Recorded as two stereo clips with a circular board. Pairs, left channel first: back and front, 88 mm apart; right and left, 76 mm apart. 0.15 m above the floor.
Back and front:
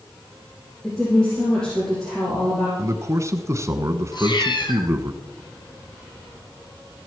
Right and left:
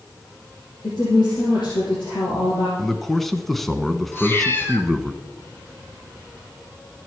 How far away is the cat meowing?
About 1.8 m.